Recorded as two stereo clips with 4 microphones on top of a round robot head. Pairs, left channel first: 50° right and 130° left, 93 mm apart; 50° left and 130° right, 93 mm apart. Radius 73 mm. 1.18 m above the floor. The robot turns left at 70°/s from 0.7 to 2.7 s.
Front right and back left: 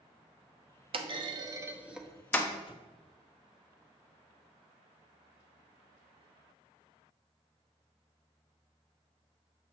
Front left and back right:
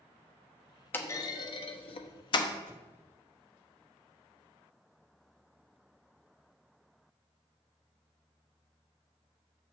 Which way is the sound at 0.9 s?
120° left.